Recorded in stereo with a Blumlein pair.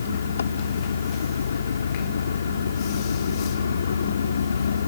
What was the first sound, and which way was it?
An engine running, 70° left.